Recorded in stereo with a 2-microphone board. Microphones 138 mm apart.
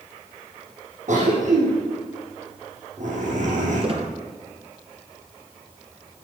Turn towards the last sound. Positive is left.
turn(degrees=-40)  # may be behind; listen again after turning